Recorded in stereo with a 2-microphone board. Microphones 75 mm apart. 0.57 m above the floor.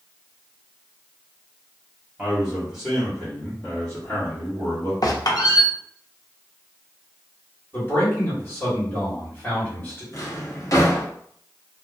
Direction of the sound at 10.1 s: 45° left (ahead or behind).